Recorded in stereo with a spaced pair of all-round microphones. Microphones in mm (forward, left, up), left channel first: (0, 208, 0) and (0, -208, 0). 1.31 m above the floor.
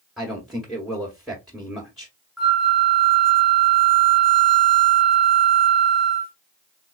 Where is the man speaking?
Centre (ahead or behind), 1.1 m.